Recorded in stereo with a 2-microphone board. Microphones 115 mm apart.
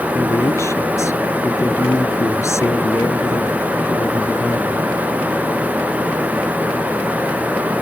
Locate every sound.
0.1 s a man speaking: 25° left (ahead or behind)